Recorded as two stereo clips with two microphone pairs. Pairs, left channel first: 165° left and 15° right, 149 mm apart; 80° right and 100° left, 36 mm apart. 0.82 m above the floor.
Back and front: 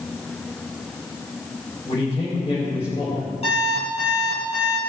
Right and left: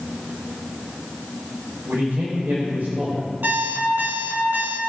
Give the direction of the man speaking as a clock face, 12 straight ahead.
8 o'clock.